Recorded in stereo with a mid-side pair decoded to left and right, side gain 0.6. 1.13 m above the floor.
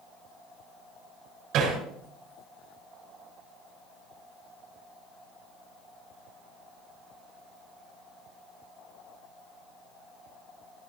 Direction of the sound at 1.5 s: 65° right.